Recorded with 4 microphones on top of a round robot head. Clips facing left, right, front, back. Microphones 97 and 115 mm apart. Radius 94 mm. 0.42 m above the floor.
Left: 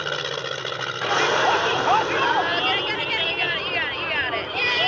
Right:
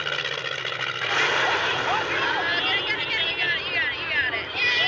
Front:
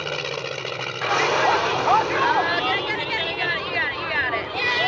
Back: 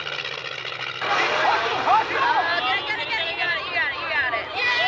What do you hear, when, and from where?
0.0 s an aircraft: 35° left
1.0 s a shout: 90° left